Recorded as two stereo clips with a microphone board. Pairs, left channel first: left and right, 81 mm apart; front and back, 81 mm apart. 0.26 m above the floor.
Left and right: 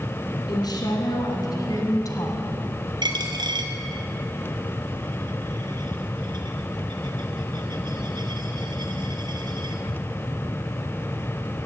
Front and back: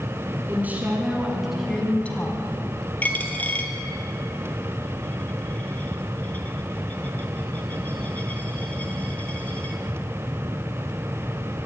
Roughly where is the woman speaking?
Behind left.